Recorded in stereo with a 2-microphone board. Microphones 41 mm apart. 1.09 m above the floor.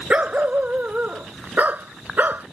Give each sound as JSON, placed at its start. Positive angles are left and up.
{"t": 0.1, "sound": "a dog barking", "side_deg": -30}